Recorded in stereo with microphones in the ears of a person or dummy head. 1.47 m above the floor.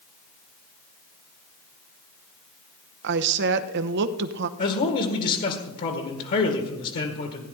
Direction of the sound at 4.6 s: 45° left (ahead or behind).